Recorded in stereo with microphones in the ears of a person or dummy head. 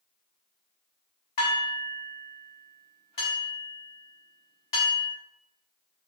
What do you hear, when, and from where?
1.4 s dishes clattering: 40° left (ahead or behind), 1.1 m